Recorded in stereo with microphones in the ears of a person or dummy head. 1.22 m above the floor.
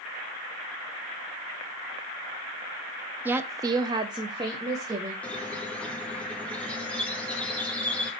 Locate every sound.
3.2 s a woman speaking: 15° right (ahead or behind), 0.5 m
5.2 s a squeak: 10° left (ahead or behind), 0.8 m